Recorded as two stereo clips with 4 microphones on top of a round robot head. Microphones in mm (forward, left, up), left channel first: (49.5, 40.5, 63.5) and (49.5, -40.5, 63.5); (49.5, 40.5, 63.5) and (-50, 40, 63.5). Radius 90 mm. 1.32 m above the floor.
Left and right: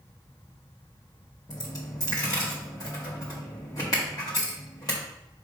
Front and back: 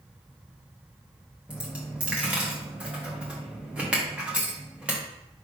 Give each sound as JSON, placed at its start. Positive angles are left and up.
{"t": 1.5, "sound": "a dropped coin", "azimuth_deg": 110, "distance_m": 0.7}